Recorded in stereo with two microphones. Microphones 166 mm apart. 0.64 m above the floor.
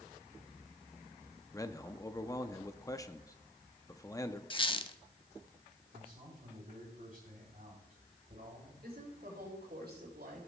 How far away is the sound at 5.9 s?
About 3 m.